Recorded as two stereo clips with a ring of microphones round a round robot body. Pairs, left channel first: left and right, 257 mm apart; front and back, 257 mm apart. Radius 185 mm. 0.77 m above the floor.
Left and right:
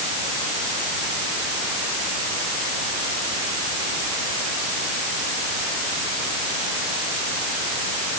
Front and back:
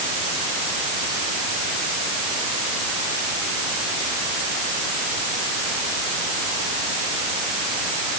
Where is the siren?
I don't hear a siren.